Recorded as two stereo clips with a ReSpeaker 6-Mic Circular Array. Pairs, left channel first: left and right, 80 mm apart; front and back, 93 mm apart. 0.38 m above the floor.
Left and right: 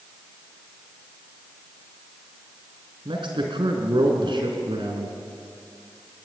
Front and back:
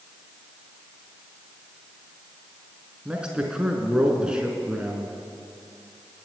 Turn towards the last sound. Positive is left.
turn(degrees=-100)